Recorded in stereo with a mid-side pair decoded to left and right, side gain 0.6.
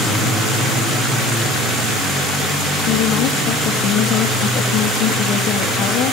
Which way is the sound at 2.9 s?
65° left.